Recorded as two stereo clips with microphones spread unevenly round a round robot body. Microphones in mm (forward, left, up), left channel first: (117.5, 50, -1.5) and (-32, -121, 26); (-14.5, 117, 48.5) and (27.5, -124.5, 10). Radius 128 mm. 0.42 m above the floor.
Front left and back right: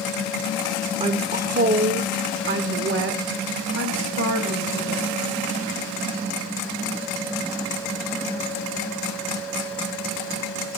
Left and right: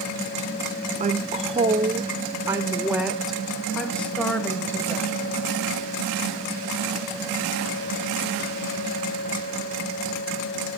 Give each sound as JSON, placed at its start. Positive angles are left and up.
{"t": 1.0, "sound": "a woman speaking", "azimuth_deg": -80, "distance_m": 1.3}